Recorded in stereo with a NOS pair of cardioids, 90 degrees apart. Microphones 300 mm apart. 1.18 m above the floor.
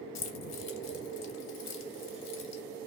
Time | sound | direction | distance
0.1 | keys jangling | 60° left | 0.7 m